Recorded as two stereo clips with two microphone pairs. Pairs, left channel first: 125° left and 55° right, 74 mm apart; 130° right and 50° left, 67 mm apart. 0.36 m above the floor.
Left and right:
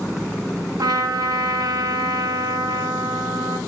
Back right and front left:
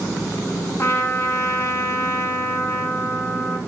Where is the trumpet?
85° right, 0.6 m.